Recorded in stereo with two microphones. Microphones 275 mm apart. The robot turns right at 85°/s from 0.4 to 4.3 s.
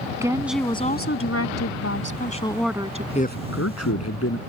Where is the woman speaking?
10° right; by 3.0 s 145° right.